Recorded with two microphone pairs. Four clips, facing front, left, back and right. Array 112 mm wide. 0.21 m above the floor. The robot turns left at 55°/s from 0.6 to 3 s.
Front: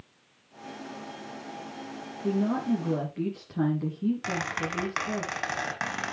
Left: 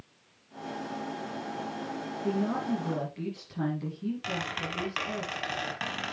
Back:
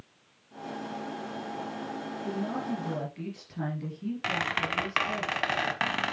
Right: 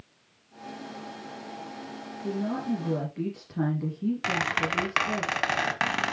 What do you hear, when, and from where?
2.2 s a woman speaking: straight ahead, 4 m; by 5.2 s 40° right, 4 m
4.2 s a squeak: 110° right, 1.0 m